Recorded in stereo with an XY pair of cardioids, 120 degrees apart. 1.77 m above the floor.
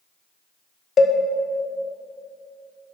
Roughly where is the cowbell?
Ahead left.